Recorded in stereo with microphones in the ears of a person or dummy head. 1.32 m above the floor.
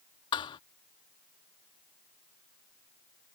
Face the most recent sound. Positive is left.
turn(degrees=30)  # may be behind; listen again after turning